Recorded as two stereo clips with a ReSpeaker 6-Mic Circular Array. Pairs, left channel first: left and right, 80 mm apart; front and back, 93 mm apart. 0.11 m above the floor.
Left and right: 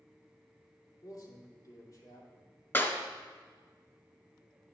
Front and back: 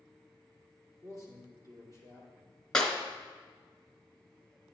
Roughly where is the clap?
Left.